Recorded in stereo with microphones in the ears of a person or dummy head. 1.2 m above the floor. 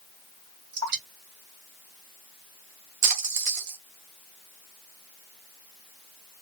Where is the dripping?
50° right (ahead or behind), 2.0 m.